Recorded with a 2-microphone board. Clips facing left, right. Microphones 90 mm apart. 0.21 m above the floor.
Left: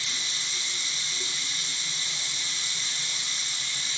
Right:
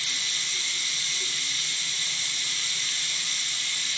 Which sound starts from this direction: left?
Running water, at 0.0 s.